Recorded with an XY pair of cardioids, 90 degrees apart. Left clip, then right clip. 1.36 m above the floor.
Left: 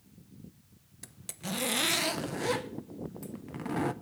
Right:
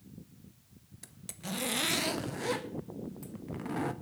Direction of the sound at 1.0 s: 25° left.